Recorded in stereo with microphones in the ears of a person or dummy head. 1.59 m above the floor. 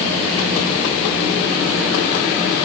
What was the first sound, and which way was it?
Only background noise.